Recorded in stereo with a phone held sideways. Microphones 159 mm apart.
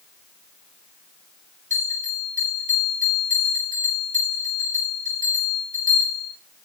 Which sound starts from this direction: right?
A bell, at 1.7 s.